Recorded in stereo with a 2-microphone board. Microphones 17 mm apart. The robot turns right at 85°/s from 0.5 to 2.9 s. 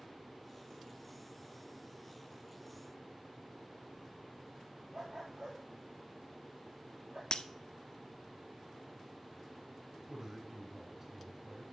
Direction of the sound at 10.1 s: 25° right (ahead or behind).